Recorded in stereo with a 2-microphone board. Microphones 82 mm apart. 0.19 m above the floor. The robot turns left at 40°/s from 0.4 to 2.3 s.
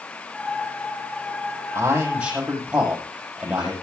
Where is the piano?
No piano in this recording.